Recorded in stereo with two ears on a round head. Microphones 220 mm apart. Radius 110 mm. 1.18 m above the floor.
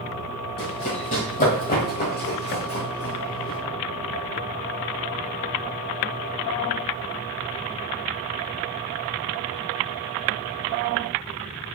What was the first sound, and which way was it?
Running footsteps, 25° left (ahead or behind).